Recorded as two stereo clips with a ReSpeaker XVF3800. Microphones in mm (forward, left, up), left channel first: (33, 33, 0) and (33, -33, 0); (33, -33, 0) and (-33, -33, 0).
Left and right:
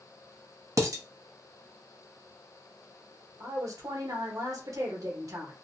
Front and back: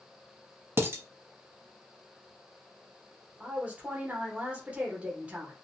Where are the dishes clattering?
125° right, 0.7 m.